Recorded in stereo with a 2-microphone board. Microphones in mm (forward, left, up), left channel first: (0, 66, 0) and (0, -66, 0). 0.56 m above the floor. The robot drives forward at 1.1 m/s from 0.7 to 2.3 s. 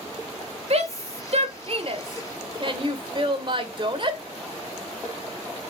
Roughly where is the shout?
Right.